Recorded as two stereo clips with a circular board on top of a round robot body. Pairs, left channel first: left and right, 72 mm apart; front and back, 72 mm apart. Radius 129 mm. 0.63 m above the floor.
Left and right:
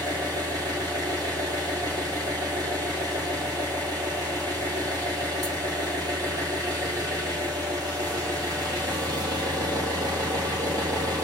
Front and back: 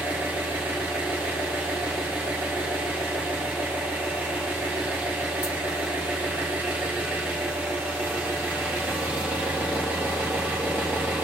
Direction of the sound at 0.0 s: 110° right.